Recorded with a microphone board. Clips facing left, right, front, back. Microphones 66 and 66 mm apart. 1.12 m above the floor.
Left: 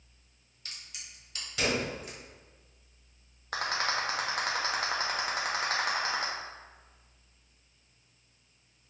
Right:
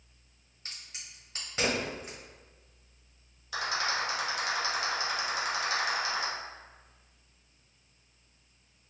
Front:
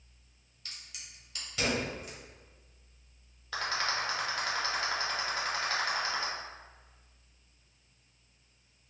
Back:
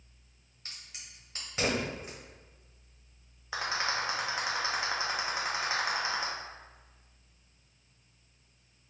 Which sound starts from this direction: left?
A rattle, at 3.5 s.